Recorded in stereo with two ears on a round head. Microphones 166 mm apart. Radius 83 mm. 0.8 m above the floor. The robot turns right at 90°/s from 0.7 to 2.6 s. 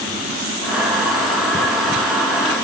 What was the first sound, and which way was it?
Only background noise.